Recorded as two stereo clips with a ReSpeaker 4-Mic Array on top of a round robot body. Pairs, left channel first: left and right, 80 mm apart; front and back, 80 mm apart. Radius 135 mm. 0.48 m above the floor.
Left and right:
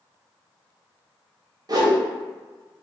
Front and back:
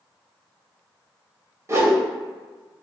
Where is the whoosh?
125° right, 0.8 m.